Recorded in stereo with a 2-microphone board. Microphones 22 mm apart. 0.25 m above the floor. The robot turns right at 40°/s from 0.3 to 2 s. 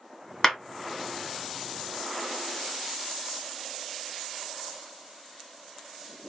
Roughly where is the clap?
Centre.